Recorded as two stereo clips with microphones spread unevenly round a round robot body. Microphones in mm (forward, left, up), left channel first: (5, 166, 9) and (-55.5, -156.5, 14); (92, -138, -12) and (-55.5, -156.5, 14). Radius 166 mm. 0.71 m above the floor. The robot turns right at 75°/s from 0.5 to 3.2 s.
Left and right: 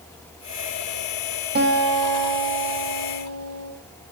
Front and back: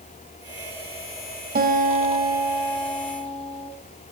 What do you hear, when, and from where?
1.6 s a guitar: 165° right, 3.5 m; by 3.7 s 40° right, 3.5 m